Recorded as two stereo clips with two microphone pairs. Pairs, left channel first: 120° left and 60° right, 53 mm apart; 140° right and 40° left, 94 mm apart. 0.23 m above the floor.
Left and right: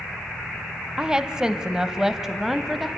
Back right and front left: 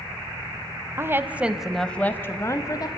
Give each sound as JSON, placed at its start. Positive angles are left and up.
{"t": 1.0, "sound": "a woman speaking", "azimuth_deg": 5, "distance_m": 1.3}